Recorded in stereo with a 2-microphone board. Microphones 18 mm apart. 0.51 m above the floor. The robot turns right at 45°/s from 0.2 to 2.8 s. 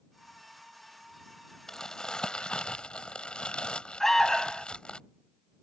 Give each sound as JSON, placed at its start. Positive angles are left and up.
{"t": 1.7, "sound": "crumpling", "azimuth_deg": 35}
{"t": 4.0, "sound": "an alarm", "side_deg": 20}